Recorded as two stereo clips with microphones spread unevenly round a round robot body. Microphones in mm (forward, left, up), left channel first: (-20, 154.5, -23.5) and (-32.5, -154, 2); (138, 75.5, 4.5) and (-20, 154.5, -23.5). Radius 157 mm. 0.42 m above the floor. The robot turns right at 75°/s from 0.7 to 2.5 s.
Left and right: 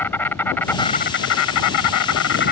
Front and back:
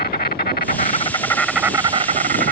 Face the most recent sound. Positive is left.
turn(degrees=140)